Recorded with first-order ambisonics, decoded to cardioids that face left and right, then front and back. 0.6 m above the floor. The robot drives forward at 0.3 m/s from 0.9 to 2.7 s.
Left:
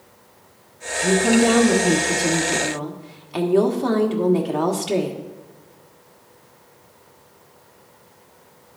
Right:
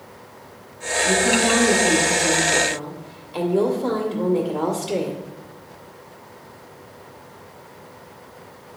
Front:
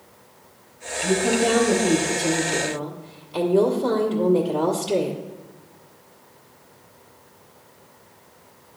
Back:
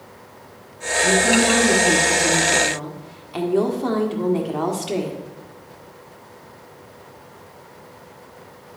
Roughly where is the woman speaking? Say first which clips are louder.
Left 1 dB, back 4 dB; left.